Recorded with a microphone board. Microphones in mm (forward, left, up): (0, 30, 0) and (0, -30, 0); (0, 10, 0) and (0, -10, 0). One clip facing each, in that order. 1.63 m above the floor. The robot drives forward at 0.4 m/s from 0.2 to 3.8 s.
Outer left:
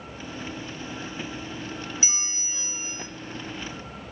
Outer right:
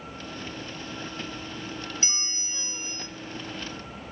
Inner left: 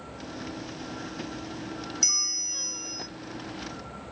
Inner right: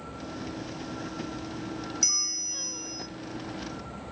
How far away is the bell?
About 0.7 m.